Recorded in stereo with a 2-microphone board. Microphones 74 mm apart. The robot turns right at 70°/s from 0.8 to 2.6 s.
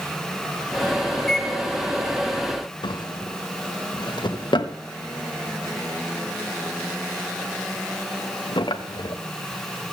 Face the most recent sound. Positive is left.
turn(degrees=85)